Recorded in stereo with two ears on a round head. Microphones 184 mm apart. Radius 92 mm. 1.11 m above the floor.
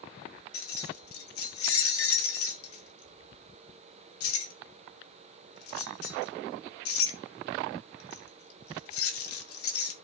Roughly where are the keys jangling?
Left.